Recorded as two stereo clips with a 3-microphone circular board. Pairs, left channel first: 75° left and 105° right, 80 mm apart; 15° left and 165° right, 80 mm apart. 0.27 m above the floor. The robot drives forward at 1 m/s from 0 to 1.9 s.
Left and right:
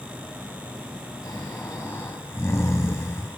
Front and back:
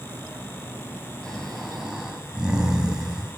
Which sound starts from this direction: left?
Snoring, at 1.2 s.